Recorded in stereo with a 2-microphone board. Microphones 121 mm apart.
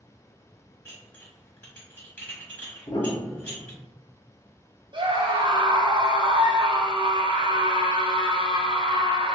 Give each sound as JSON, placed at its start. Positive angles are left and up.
{"t": 0.8, "sound": "dishes clattering", "side_deg": 15, "distance_m": 1.1}
{"t": 2.9, "sound": "a piano", "side_deg": 35, "distance_m": 0.5}
{"t": 4.9, "sound": "a scream", "side_deg": -40, "distance_m": 0.7}